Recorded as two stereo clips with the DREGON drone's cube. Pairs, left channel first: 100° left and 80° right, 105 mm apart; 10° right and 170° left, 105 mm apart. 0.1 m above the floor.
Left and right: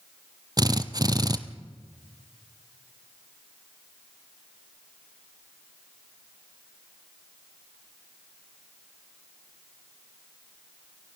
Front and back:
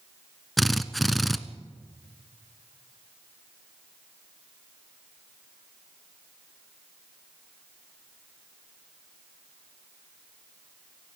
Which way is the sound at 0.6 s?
100° right.